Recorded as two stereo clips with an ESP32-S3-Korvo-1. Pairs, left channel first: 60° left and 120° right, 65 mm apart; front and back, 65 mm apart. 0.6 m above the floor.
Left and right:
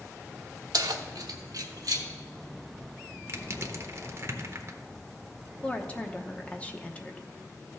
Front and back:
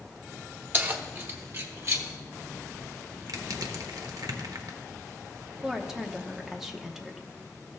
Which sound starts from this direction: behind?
Crushing, at 3.3 s.